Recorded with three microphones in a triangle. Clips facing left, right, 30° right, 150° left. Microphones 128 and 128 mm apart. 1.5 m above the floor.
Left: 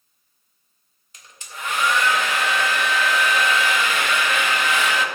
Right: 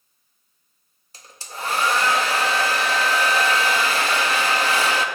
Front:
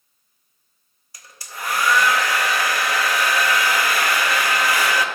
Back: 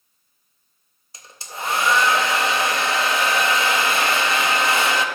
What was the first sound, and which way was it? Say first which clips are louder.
A hair dryer: right 3 dB, back 2 dB; 145° right.